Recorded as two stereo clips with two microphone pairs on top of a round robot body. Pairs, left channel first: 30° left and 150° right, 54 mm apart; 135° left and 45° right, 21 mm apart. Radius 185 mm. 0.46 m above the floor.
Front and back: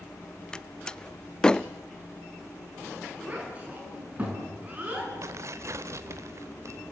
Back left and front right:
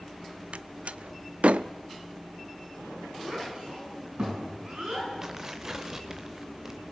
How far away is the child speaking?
About 7 m.